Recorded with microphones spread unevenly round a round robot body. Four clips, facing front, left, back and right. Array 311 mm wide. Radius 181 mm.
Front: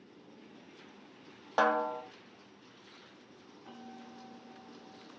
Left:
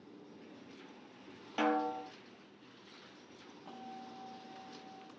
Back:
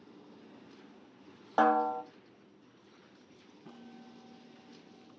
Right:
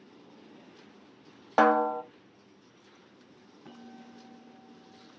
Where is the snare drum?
85° right, 0.6 m.